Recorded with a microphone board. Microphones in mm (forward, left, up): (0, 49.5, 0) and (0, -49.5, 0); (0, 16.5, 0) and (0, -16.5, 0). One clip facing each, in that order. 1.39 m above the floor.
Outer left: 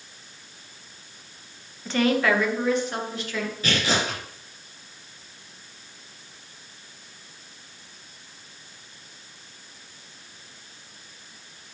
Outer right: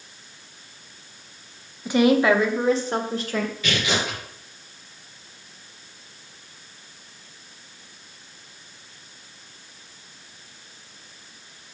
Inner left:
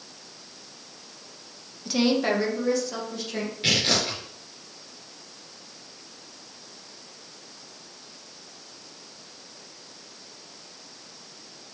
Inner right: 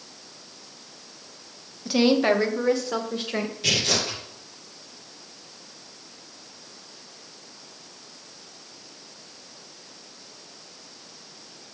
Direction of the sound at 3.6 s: 40° left (ahead or behind).